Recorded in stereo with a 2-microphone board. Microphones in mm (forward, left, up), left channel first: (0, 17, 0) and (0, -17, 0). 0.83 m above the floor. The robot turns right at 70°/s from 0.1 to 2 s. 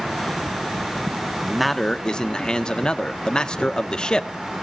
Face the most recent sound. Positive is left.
turn(degrees=25)